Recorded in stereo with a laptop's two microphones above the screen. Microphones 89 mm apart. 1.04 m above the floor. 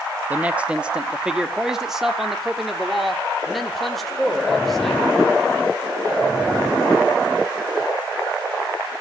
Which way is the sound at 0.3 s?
15° right (ahead or behind).